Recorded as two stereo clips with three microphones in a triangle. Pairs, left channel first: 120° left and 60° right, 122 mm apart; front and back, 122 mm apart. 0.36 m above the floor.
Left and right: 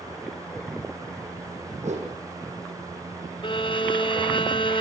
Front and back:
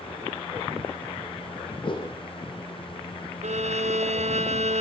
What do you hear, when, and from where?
1.8 s a whoosh: 45° right, 7 m
3.4 s a violin: 165° left, 2.0 m